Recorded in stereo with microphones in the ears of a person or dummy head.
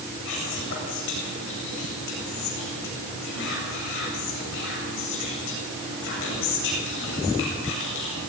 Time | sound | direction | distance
0.2 | whispering | 60° left (ahead or behind) | 8.5 m